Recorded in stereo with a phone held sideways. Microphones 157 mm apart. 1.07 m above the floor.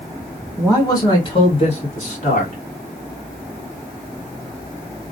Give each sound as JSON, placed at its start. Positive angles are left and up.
{"t": 0.6, "sound": "a man speaking", "side_deg": 15, "distance_m": 1.3}